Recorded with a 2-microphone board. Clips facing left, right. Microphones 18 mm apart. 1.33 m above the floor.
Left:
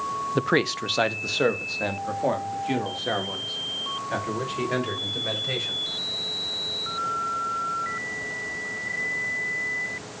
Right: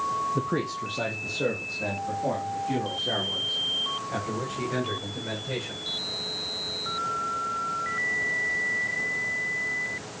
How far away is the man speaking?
About 0.6 m.